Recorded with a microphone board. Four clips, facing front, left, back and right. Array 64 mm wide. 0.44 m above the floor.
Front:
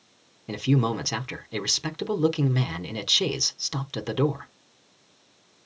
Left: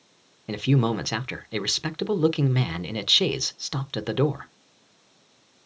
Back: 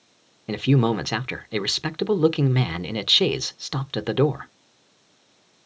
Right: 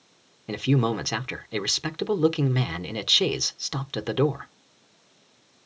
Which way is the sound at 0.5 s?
175° left.